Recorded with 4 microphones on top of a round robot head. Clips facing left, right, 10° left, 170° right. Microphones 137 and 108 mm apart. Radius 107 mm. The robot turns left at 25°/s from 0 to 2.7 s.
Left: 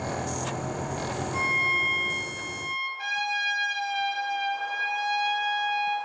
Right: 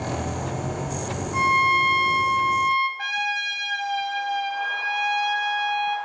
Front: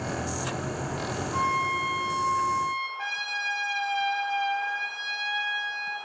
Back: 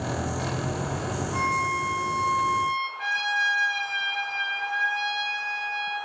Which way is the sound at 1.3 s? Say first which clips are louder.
Right 9 dB, even; 70° right.